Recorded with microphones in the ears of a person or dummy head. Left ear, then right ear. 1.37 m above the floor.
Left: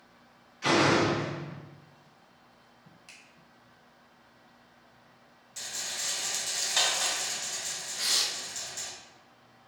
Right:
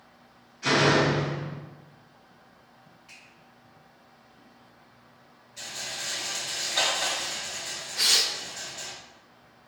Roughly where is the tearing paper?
Right.